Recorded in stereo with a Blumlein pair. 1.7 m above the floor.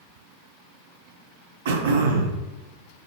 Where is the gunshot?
I don't hear a gunshot.